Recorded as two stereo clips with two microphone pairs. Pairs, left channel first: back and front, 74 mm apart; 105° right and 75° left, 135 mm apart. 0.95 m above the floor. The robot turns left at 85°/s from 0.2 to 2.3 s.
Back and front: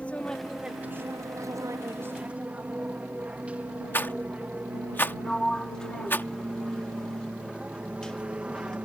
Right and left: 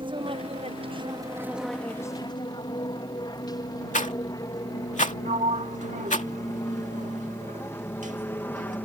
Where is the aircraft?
110° left; by 8.9 s 50° right.